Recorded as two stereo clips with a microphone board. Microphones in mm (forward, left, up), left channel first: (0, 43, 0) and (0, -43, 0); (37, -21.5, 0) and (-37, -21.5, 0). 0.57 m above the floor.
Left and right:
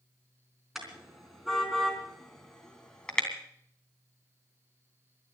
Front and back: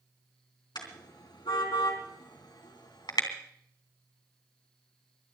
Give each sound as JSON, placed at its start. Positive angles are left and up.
{"t": 0.8, "sound": "a car horn", "azimuth_deg": -5, "distance_m": 4.0}